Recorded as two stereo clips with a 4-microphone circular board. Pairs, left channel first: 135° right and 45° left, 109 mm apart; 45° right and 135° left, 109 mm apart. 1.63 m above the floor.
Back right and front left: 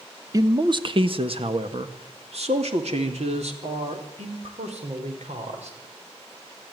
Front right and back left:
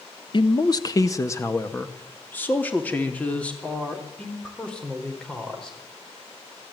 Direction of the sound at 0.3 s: 5° right.